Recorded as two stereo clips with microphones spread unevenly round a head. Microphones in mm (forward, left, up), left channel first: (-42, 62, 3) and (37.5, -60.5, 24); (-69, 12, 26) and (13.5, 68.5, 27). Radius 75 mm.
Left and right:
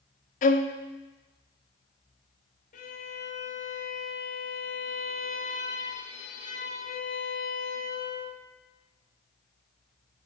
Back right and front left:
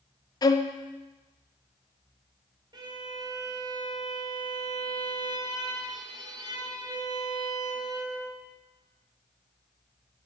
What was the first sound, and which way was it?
A violin, 165° left.